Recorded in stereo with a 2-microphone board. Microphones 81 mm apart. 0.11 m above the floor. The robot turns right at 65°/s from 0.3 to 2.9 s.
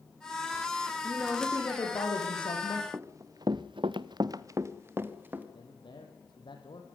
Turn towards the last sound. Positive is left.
turn(degrees=70)  # may be behind; listen again after turning